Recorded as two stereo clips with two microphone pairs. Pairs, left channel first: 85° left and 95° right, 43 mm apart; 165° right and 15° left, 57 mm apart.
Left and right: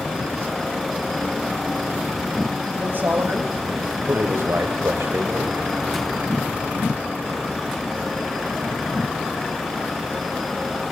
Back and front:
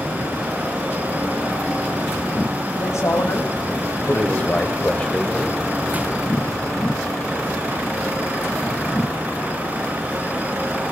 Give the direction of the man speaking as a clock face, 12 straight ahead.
5 o'clock.